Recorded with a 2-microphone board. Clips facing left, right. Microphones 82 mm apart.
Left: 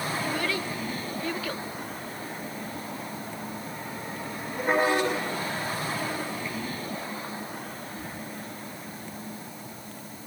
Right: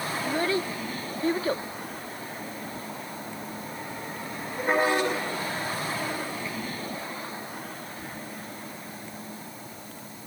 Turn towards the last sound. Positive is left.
turn(degrees=-30)  # may be behind; listen again after turning